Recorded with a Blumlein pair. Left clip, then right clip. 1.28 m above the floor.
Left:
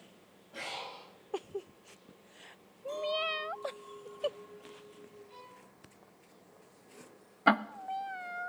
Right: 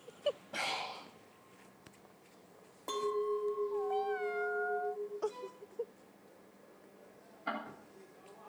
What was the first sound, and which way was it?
Breathing, 60° right.